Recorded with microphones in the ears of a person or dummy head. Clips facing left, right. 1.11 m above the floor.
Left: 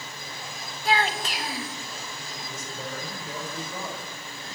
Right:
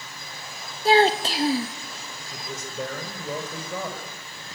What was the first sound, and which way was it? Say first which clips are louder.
A child speaking: right 8 dB; 35° right (ahead or behind).